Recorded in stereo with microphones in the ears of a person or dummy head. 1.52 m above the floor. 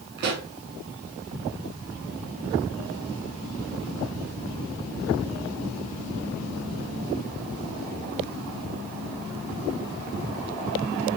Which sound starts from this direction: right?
A pop, at 0.2 s.